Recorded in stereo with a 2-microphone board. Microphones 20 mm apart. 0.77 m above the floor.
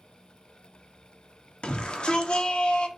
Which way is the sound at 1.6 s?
65° left (ahead or behind).